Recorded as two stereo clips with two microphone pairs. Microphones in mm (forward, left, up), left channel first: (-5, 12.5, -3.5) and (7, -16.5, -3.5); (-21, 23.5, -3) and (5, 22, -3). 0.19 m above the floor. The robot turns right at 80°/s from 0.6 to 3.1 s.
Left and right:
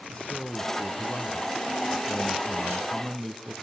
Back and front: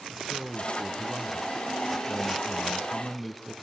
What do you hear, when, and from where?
0.1 s a man speaking: 65° left, 1.9 m; by 3.5 s 95° right, 1.9 m